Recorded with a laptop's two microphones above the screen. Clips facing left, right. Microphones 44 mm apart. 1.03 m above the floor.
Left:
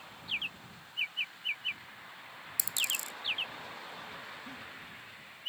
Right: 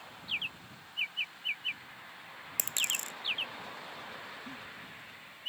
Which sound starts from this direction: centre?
A giggle, at 4.5 s.